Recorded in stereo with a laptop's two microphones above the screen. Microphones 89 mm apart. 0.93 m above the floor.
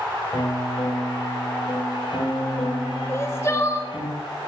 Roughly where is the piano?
Left.